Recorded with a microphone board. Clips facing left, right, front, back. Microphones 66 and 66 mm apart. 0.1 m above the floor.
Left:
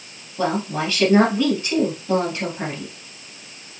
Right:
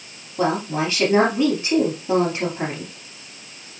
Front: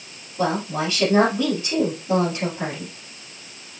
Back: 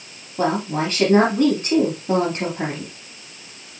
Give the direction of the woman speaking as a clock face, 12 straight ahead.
5 o'clock.